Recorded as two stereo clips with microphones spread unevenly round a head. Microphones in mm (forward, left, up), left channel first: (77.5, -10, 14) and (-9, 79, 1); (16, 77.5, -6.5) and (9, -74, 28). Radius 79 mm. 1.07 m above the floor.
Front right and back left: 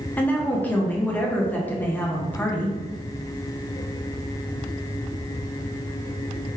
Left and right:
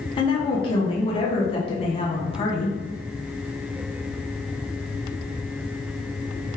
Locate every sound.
0.2 s a woman speaking: 30° left, 0.7 m